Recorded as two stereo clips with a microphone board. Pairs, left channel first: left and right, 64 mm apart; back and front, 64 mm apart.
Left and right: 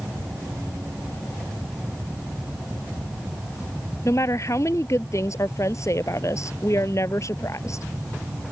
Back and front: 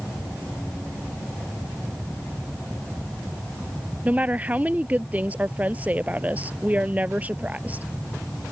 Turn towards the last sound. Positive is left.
turn(degrees=65)